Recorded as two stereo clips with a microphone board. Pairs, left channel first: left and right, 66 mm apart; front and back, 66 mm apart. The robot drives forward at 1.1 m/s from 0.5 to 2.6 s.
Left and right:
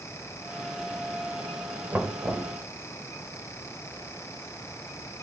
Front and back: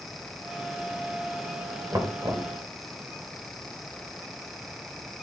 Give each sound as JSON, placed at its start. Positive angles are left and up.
{"t": 1.9, "sound": "knocking", "azimuth_deg": -155, "distance_m": 1.9}